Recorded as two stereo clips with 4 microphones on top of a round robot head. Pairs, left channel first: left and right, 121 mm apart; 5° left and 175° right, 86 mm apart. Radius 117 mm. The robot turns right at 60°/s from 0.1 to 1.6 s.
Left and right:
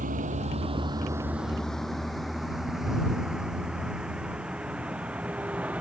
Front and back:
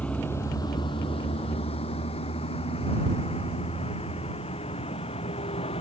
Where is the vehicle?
70° right; by 5.8 s 10° right.